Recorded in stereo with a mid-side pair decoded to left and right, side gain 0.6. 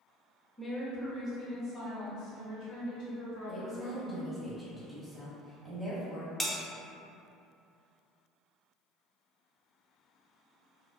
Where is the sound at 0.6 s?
10° left, 0.9 m; by 3.8 s 80° left, 1.8 m.